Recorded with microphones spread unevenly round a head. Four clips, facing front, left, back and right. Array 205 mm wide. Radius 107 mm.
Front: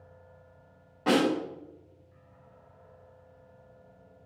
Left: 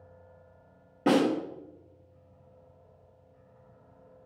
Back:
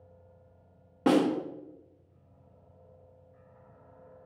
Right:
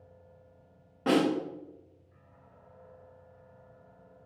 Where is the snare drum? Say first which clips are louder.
Left 2 dB, back 1 dB; 145° left, 2.5 m.